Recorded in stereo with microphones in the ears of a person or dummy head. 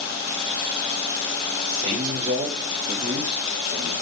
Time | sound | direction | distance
1.6 | a man speaking | 30° right (ahead or behind) | 3.5 m